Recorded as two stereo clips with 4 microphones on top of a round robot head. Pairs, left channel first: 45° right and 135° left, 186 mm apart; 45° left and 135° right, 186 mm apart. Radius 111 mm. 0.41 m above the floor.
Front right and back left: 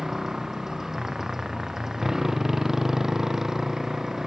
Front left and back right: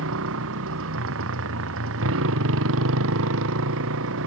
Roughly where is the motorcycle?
Behind right.